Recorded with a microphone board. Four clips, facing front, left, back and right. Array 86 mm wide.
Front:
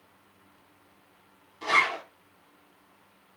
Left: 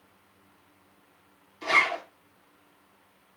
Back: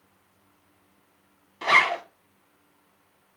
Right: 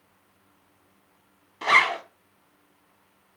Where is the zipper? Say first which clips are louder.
Right 4 dB, back 4 dB; 125° right, 1.0 m.